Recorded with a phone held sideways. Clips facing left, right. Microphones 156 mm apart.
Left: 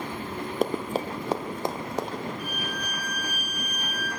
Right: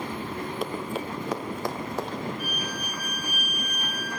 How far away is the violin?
About 6 m.